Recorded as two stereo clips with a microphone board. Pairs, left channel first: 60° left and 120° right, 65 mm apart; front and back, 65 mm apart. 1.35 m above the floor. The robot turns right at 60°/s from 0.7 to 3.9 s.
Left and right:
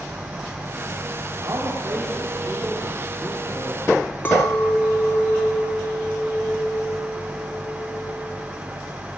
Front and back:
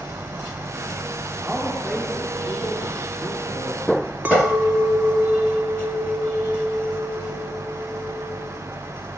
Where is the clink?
120° left, 2 m.